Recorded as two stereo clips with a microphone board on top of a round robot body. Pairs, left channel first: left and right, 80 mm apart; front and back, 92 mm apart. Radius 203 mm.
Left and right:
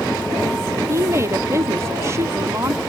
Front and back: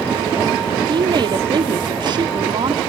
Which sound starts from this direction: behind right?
A woman speaking, at 0.9 s.